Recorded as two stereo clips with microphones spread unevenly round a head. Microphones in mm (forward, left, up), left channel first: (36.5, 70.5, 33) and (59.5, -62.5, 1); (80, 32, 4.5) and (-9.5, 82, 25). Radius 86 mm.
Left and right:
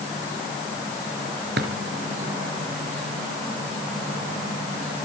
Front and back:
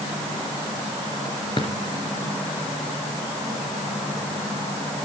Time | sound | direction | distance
1.6 | a drawer | 100° right | 3.5 m